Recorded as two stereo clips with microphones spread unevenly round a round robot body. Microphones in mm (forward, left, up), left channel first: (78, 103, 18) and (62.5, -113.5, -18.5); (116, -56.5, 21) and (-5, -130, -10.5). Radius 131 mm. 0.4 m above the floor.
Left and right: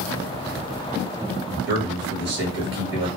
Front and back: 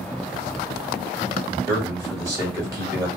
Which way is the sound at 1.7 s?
95° right.